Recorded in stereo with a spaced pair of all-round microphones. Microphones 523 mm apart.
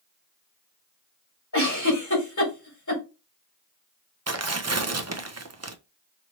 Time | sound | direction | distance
1.5 | a giggle | 35° left (ahead or behind) | 2 m
4.3 | tearing paper | 30° right (ahead or behind) | 0.6 m